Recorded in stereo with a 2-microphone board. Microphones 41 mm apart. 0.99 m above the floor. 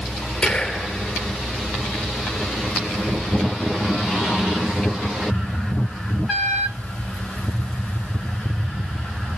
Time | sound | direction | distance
0.4 | whispering | 30° left (ahead or behind) | 4 m